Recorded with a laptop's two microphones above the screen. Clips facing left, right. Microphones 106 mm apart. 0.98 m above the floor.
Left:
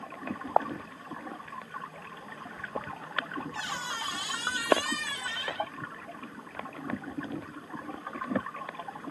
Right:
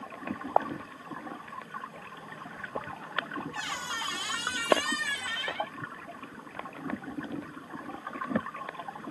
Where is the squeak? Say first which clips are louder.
Even; 25° left (ahead or behind), 5.5 m.